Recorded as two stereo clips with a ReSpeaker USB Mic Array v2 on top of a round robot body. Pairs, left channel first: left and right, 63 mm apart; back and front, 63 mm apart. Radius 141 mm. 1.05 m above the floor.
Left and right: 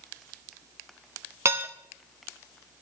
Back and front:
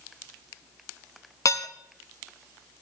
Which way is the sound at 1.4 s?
140° right.